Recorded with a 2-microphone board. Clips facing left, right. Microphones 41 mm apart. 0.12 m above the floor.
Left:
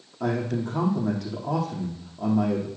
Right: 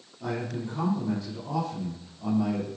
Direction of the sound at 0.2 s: 60° left (ahead or behind).